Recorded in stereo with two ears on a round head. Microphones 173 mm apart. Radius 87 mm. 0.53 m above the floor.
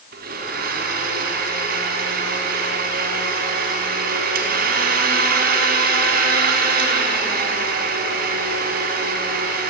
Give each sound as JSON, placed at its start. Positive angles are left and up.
{"t": 0.1, "sound": "a blender", "side_deg": -50, "distance_m": 4.5}